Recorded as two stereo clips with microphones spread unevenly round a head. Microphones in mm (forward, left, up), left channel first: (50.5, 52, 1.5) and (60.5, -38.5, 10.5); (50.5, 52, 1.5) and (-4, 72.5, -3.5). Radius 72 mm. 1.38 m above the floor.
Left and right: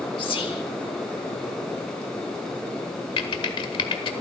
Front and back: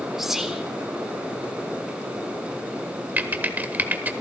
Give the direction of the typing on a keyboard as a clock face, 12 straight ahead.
8 o'clock.